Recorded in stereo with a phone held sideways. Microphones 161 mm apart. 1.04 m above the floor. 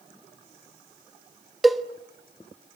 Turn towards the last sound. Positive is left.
turn(degrees=0)  # may be behind; listen again after turning